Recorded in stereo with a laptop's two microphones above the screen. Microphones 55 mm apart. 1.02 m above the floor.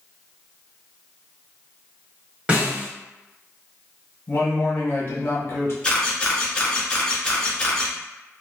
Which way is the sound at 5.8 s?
15° left (ahead or behind).